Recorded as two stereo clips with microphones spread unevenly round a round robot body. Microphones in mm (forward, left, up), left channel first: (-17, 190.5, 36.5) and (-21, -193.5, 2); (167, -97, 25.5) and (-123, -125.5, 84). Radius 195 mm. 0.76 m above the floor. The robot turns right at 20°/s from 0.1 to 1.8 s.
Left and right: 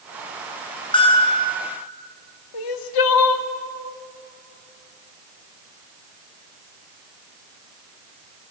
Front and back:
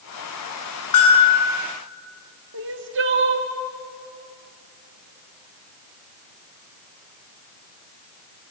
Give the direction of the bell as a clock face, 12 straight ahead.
12 o'clock.